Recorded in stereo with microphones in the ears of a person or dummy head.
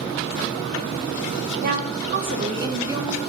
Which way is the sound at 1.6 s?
55° right (ahead or behind).